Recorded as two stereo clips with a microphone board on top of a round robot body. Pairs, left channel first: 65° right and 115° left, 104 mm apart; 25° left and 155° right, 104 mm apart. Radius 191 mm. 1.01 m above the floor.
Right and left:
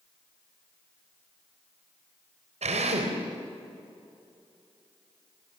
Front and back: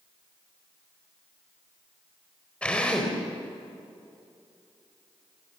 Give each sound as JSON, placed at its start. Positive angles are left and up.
{"t": 2.6, "sound": "a drill", "azimuth_deg": 105, "distance_m": 3.5}